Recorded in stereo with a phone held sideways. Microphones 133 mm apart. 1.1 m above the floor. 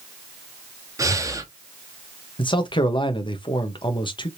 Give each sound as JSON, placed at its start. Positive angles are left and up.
{"t": 1.0, "sound": "breathing", "side_deg": -25, "distance_m": 0.6}
{"t": 2.4, "sound": "a man speaking", "side_deg": 40, "distance_m": 0.7}